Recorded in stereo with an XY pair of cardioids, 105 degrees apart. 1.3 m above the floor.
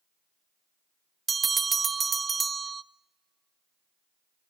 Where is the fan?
No fan in this recording.